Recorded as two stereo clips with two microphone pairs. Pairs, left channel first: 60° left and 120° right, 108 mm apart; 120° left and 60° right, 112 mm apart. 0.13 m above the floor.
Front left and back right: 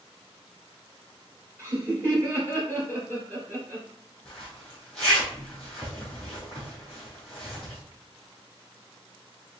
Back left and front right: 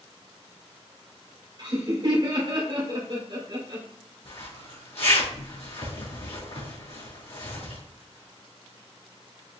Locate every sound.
1.6 s laughter: 75° right, 1.7 m
4.2 s a zipper: 140° left, 2.5 m